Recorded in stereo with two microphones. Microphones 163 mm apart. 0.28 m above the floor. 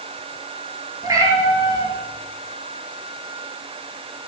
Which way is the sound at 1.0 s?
20° right (ahead or behind).